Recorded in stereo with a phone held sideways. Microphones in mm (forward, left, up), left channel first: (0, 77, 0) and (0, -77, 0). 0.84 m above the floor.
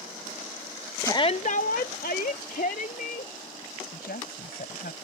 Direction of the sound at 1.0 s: 15° left (ahead or behind).